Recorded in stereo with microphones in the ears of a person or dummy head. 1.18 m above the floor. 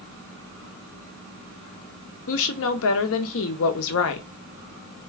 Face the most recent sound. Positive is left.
turn(degrees=70)  # may be behind; listen again after turning